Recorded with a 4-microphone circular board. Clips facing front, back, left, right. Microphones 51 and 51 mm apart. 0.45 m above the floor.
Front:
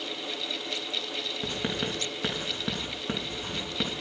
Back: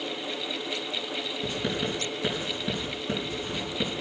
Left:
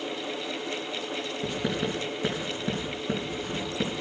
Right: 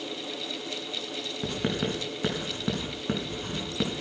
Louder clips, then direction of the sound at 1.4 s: Back 2 dB, right 1 dB; 55° right.